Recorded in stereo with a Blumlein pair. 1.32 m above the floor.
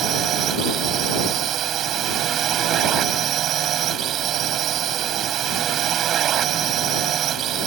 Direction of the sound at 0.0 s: 30° right.